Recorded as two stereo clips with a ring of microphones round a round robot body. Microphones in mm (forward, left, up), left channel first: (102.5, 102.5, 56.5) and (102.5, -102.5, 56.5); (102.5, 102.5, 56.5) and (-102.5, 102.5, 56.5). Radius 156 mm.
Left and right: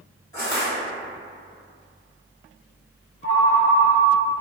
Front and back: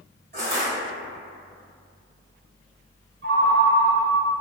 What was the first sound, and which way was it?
Crushing, 160° left.